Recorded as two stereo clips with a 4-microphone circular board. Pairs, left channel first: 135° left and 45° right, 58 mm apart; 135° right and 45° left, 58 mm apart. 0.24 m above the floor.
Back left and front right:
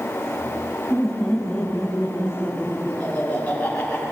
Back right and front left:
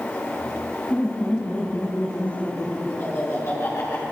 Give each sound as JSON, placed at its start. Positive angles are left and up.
{"t": 0.9, "sound": "laughter", "azimuth_deg": -150, "distance_m": 1.5}